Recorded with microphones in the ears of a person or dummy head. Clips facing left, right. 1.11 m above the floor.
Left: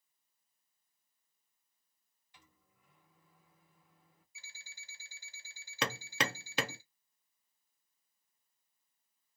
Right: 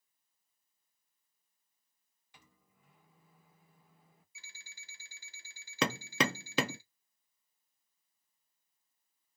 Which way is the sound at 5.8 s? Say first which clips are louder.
Right 5 dB; 80° right.